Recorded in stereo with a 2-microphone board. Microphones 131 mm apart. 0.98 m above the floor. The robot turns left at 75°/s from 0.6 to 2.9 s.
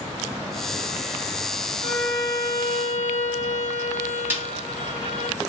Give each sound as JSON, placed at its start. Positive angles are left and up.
{"t": 1.8, "sound": "a violin", "azimuth_deg": -150, "distance_m": 1.6}
{"t": 4.3, "sound": "a snare drum", "side_deg": -15, "distance_m": 1.2}